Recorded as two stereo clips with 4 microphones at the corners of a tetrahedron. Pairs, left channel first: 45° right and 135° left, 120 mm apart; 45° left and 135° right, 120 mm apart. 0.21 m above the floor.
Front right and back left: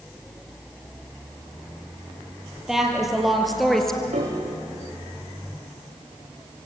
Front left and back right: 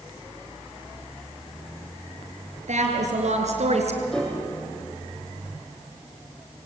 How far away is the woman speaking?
About 5.5 m.